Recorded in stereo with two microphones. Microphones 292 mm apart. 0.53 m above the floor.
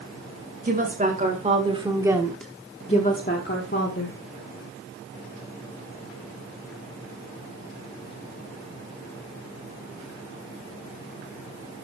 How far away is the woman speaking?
About 2.5 m.